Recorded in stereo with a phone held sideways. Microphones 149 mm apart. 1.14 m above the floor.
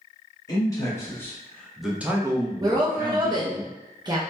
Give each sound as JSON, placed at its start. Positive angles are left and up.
{"t": 0.5, "sound": "a man speaking", "side_deg": 25, "distance_m": 1.4}
{"t": 2.6, "sound": "a woman speaking", "side_deg": -30, "distance_m": 0.6}